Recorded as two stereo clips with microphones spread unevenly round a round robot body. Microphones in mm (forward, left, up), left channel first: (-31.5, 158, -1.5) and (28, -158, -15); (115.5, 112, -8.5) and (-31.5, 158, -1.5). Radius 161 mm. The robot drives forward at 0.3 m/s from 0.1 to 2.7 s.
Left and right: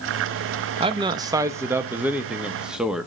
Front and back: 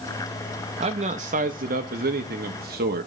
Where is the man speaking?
145° right, 0.5 m; by 3.1 s 165° right, 1.0 m.